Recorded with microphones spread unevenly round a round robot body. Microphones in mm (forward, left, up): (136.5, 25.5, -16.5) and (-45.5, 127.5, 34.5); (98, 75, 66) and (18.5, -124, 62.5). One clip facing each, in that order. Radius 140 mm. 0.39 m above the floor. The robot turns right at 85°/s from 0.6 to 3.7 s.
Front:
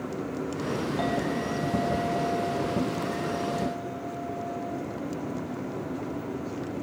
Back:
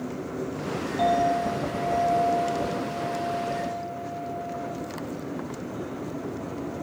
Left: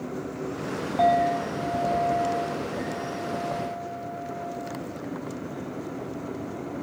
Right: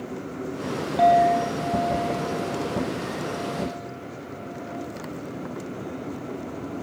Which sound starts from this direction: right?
A clink, at 1.0 s.